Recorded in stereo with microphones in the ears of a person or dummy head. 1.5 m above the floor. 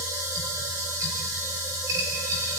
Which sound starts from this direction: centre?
A machine running, at 0.0 s.